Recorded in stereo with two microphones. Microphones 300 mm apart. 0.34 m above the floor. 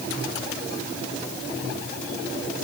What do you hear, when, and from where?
Only background noise.